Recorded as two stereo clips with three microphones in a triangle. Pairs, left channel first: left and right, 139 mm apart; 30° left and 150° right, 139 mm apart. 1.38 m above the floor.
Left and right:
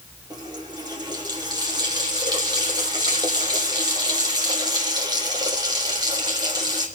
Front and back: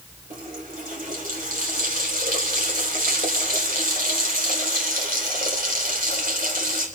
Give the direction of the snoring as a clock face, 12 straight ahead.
No snoring in this recording.